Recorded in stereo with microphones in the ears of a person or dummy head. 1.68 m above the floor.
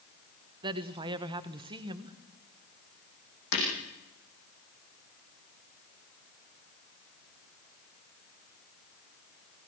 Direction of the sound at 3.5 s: 65° left (ahead or behind).